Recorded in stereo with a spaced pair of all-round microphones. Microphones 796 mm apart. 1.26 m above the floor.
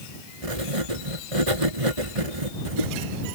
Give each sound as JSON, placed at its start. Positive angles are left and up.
{"t": 0.4, "sound": "writing", "side_deg": -40}